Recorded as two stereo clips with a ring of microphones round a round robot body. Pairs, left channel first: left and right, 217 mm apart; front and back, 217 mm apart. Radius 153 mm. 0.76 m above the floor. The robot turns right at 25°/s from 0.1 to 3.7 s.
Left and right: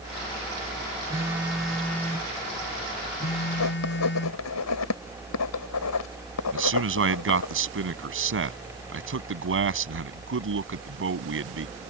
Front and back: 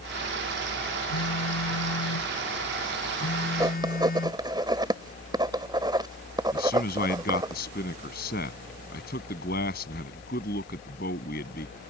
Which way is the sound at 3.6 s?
105° left.